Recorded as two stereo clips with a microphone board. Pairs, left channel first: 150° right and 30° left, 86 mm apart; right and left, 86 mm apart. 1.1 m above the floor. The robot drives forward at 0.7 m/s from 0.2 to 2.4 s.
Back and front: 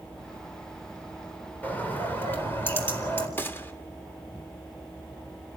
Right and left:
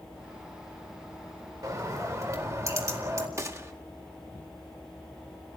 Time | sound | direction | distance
1.6 | a bird | 140° left | 4 m
3.4 | a gunshot | 145° left | 1.7 m